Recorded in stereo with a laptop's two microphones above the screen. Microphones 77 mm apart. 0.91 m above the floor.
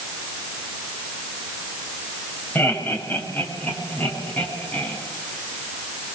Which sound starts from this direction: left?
Laughter, at 2.5 s.